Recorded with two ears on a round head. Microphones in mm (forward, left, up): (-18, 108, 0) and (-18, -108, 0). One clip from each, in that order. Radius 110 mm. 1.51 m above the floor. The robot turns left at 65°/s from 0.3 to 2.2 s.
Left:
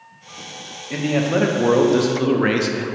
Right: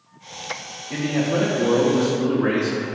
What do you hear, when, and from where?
0.9 s a man speaking: 170° left, 0.5 m; by 2.8 s 85° left, 0.5 m